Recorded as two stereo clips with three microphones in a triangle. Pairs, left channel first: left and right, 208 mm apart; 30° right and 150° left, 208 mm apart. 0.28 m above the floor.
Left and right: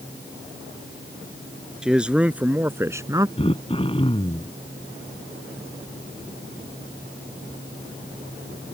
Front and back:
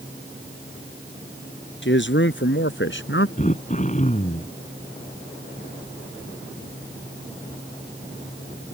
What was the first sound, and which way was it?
A man speaking, 5° right.